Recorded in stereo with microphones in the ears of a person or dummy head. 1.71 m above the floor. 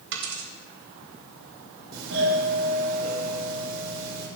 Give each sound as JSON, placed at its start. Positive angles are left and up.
{"t": 0.1, "sound": "a dropped coin", "side_deg": -70, "distance_m": 3.0}
{"t": 1.9, "sound": "a doorbell", "side_deg": -65, "distance_m": 7.0}